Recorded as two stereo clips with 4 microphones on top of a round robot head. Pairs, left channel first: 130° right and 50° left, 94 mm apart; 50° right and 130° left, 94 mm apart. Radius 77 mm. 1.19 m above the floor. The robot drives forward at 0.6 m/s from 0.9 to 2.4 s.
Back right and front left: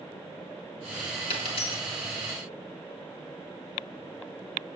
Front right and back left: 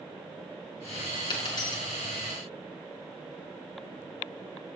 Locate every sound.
1.3 s a dropped coin: 95° right, 3.5 m; by 1.8 s 100° right, 3.5 m